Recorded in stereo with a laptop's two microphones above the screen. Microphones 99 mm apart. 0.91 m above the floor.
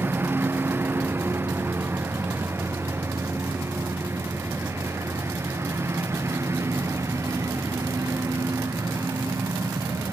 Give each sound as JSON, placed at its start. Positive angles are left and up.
{"t": 0.0, "sound": "a lawn mower", "side_deg": -20}